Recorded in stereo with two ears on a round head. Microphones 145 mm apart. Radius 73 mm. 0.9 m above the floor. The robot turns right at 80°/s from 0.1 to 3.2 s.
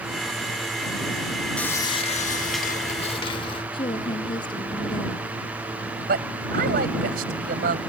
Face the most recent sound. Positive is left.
turn(degrees=-65)  # may be behind; listen again after turning